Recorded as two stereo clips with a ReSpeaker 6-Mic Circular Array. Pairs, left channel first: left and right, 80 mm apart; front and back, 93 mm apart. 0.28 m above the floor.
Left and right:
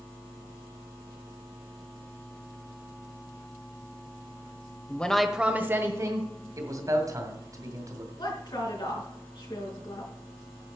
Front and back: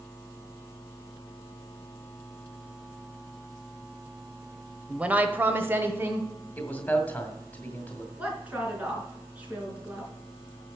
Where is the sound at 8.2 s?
105° left, 4 m.